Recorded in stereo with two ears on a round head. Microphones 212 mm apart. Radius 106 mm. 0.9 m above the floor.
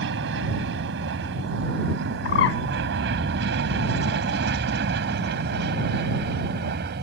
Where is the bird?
50° left (ahead or behind).